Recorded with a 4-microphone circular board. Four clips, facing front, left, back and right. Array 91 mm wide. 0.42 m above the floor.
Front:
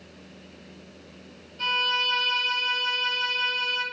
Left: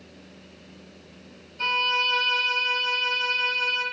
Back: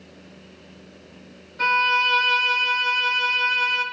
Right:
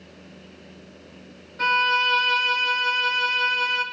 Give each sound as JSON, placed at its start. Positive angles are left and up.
{"t": 1.6, "sound": "a violin", "azimuth_deg": -130, "distance_m": 4.0}